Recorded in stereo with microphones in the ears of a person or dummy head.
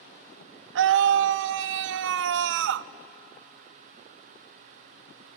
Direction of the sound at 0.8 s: 65° right (ahead or behind).